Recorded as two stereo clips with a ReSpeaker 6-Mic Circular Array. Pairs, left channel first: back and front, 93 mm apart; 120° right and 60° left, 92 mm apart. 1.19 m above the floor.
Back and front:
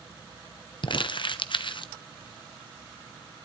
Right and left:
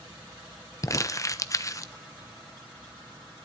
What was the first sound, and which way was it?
Crumpling, 170° right.